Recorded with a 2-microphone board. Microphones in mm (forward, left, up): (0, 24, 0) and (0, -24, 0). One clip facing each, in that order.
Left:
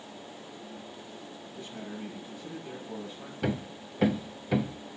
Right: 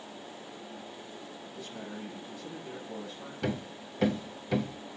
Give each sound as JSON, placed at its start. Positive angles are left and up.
{"t": 1.6, "sound": "a man speaking", "side_deg": 25, "distance_m": 6.0}
{"t": 3.4, "sound": "hammering", "side_deg": 10, "distance_m": 0.5}